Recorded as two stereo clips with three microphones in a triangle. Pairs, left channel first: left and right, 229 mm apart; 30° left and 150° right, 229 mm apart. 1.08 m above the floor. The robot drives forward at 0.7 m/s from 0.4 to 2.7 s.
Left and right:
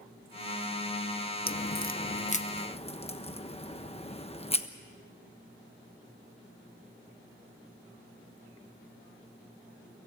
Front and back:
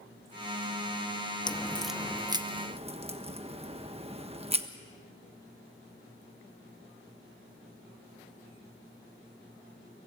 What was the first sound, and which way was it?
A crack, 90° left.